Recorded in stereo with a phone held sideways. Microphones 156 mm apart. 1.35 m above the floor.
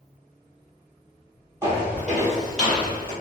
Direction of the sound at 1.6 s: 15° right (ahead or behind).